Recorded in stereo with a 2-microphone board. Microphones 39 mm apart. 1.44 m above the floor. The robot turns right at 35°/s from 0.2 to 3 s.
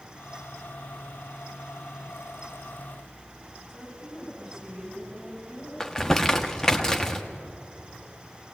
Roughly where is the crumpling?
Centre.